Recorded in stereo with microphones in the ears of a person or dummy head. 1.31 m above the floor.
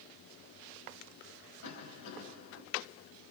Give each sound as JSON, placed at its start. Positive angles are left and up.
{"t": 1.6, "sound": "a cough", "side_deg": 85, "distance_m": 9.0}